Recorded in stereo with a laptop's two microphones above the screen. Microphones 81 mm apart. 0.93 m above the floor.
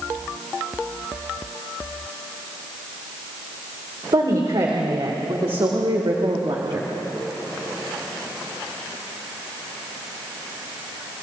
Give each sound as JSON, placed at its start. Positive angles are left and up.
{"t": 4.1, "sound": "a woman speaking", "side_deg": -65, "distance_m": 3.0}